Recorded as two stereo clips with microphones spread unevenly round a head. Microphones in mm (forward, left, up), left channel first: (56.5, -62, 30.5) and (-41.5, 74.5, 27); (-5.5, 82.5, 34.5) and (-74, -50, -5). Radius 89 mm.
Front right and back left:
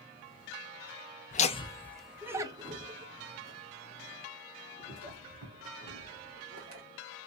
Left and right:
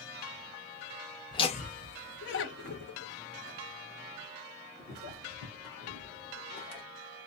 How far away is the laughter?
About 0.5 m.